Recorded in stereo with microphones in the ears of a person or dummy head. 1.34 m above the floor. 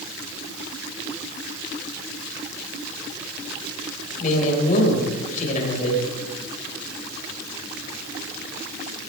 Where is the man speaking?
50° left (ahead or behind), 5.5 m.